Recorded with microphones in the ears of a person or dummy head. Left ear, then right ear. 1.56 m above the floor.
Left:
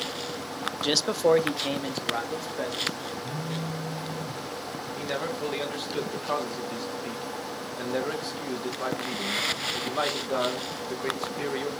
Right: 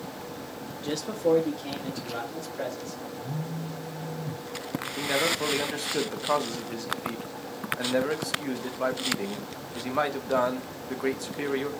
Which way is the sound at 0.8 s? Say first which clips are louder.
Left 4 dB; 45° left (ahead or behind).